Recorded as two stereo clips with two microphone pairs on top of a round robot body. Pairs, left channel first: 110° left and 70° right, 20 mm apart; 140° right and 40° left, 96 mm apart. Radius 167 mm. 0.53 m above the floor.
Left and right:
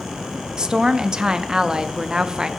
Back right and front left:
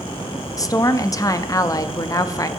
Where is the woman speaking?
115° right, 0.8 m.